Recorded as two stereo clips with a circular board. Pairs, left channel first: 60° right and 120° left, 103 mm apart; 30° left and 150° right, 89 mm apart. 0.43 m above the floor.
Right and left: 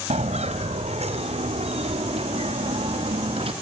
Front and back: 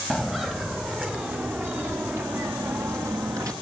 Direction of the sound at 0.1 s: 125° left.